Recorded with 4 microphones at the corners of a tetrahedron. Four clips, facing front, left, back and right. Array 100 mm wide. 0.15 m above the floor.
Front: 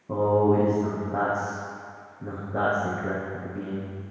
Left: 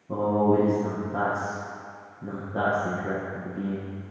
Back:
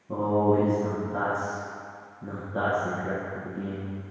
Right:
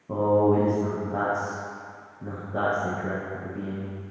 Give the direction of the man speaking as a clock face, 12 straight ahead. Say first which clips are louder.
Right 2 dB, front 2 dB; 1 o'clock.